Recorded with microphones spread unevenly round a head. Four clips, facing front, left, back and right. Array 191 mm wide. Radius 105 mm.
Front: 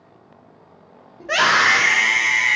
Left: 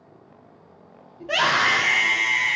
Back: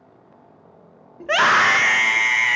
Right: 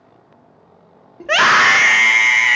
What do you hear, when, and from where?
1.2 s a scream: 90° right, 1.4 m